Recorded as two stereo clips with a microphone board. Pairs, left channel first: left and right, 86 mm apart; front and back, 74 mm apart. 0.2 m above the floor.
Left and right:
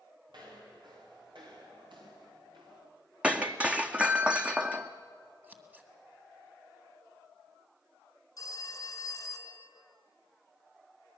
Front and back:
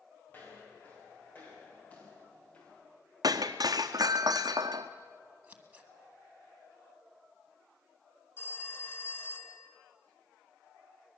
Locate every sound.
0.3 s footsteps: 60° right, 9 m; by 2.8 s 75° right, 6 m
3.2 s breaking glass: 165° right, 0.9 m
5.4 s scissors: 135° right, 1.7 m
8.4 s a phone ringing: 50° left, 1.8 m